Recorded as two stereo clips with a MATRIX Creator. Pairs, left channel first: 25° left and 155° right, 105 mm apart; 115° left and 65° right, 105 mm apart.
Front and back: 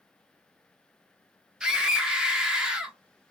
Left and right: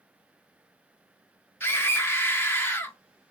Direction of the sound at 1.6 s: 135° left.